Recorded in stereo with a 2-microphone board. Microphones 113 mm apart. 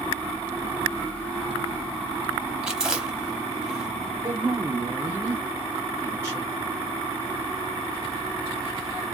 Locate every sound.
2.6 s chewing: 5° right (ahead or behind), 0.7 m
4.2 s a man speaking: 25° right (ahead or behind), 0.6 m